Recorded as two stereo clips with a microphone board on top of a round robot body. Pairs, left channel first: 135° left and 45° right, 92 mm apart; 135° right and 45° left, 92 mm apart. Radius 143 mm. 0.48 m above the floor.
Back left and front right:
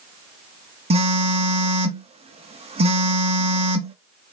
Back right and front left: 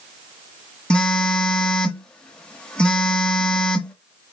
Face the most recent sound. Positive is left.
turn(degrees=-55)